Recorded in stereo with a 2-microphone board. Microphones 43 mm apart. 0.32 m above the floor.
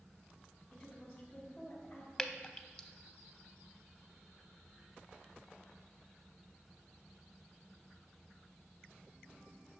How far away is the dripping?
About 0.5 m.